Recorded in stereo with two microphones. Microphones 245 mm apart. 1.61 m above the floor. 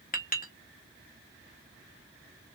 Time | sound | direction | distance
0.1 | a clink | 35° left (ahead or behind) | 0.6 m